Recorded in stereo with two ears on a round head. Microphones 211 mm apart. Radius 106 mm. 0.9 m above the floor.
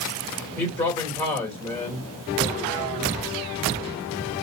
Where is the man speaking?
15° left (ahead or behind), 2.5 m.